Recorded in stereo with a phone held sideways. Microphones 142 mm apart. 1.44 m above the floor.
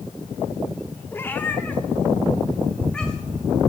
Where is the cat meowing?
15° left (ahead or behind), 1.4 m; by 3.4 s 5° left (ahead or behind), 4 m.